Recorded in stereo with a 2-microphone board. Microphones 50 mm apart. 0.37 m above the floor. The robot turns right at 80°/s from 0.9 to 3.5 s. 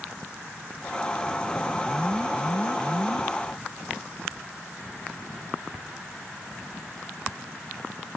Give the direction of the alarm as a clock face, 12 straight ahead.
6 o'clock.